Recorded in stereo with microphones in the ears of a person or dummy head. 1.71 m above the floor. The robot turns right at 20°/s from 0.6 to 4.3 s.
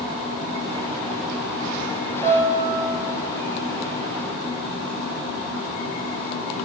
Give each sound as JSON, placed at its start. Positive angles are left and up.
{"t": 2.2, "sound": "a piano", "side_deg": 0, "distance_m": 0.6}